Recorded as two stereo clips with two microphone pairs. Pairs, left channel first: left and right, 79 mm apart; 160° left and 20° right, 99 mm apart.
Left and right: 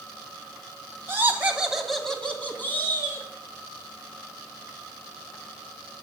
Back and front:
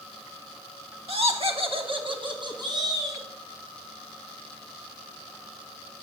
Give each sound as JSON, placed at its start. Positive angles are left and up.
{"t": 1.1, "sound": "laughter", "azimuth_deg": -30, "distance_m": 2.0}